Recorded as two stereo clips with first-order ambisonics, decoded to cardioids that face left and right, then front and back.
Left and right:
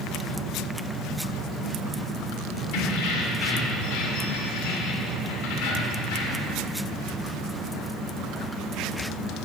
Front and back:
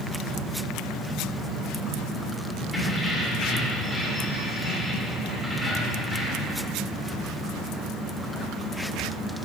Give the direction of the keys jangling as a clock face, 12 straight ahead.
9 o'clock.